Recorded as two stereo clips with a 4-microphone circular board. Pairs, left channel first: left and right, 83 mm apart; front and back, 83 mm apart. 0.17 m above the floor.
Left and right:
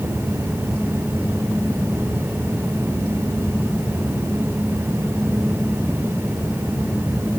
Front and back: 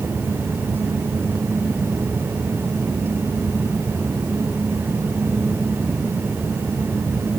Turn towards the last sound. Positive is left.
No sound to turn to.